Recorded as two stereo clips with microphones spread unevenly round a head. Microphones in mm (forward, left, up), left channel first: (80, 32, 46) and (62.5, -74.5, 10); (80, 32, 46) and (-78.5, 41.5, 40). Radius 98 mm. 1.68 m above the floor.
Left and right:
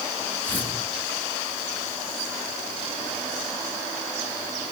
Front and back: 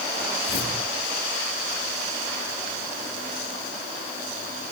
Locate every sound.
0.5 s tearing paper: 15° left, 6 m